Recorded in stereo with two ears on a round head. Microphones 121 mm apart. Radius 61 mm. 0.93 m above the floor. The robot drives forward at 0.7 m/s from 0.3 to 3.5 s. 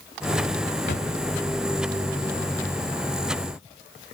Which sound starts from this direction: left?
A drawer, at 0.9 s.